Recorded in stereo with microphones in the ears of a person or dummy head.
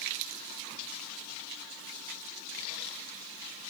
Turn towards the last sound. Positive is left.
No sound to turn to.